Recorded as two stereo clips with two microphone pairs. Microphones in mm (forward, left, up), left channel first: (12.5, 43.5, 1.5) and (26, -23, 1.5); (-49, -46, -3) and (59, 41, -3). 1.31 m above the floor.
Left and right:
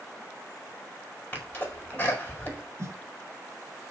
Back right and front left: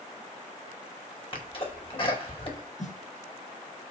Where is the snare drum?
125° right, 3 m.